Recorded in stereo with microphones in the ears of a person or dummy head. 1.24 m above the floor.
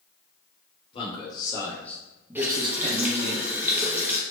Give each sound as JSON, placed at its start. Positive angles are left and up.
{"t": 0.9, "sound": "a man speaking", "side_deg": 35, "distance_m": 1.1}
{"t": 2.4, "sound": "a running tap", "side_deg": -10, "distance_m": 0.6}